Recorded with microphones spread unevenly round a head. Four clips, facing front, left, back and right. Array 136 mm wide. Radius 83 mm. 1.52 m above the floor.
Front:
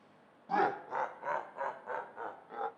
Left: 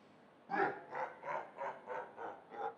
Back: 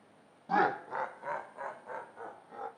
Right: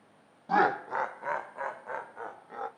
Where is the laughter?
75° right, 0.7 m; by 2.7 s 50° right, 2.5 m.